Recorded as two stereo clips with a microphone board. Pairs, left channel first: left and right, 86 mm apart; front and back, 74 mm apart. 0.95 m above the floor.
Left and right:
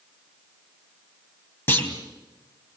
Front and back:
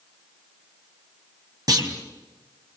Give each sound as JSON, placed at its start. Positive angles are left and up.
{"t": 1.7, "sound": "a clunk", "azimuth_deg": 150, "distance_m": 3.5}